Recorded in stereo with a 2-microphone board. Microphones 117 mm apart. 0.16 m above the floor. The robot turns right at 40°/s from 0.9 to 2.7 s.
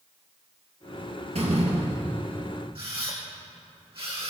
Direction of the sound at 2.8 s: 55° right (ahead or behind).